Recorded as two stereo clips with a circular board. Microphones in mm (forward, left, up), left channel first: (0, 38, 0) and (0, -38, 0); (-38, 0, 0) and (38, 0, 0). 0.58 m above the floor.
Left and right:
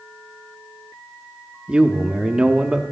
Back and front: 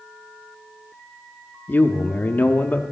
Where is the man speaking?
150° right, 0.8 m.